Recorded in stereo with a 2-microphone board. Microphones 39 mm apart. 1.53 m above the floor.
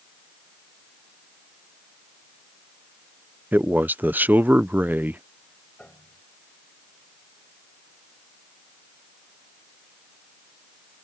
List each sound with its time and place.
3.5 s a man speaking: 55° right (ahead or behind)
5.8 s a piano: 35° left (ahead or behind)